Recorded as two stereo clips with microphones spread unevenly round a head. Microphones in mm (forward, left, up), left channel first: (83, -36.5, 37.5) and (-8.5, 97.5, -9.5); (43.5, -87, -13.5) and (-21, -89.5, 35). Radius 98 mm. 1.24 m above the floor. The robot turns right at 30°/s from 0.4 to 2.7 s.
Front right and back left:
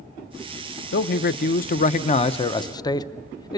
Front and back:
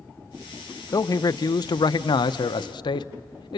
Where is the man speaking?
45° right, 0.6 m; by 3.6 s 10° left, 0.6 m.